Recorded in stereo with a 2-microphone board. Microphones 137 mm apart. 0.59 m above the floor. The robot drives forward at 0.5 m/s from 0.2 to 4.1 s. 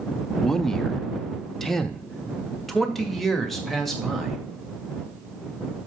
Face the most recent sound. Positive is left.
turn(degrees=0)  # may be behind; listen again after turning